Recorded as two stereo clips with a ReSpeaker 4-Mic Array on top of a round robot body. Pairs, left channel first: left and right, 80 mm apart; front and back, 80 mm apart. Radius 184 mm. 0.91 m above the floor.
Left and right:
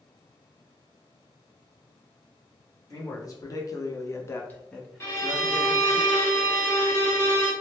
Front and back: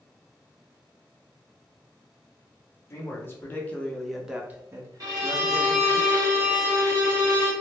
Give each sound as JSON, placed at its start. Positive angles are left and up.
{"t": 2.9, "sound": "a man speaking", "azimuth_deg": 50, "distance_m": 1.1}
{"t": 5.0, "sound": "a violin", "azimuth_deg": 145, "distance_m": 1.3}